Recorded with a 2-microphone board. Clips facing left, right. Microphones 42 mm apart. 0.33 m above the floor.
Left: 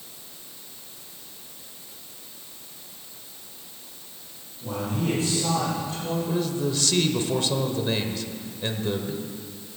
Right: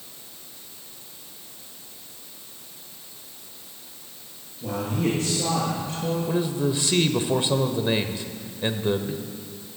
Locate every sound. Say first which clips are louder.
4.6 s a man speaking: right 2 dB; 50° right (ahead or behind), 5.5 m; by 6.2 s 45° right (ahead or behind), 6.5 m
6.3 s a man speaking: right 2 dB; 20° right (ahead or behind), 1.0 m